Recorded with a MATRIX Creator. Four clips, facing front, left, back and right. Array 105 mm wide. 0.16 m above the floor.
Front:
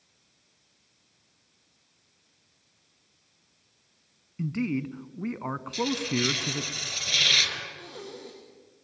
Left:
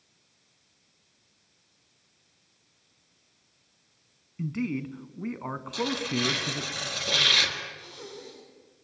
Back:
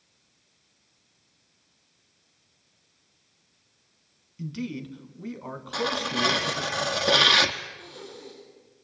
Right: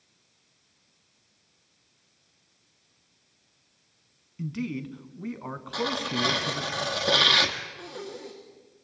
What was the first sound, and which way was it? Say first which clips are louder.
A man speaking: left 2 dB, front 5 dB; 20° left.